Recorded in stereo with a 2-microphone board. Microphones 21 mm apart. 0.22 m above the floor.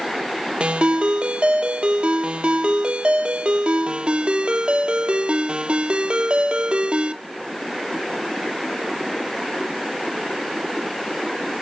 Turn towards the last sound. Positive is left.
turn(degrees=-55)  # may be behind; listen again after turning